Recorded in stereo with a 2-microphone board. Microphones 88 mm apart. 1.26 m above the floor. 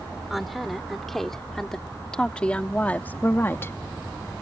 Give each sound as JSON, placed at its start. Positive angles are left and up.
{"t": 0.3, "sound": "a woman speaking", "side_deg": 0}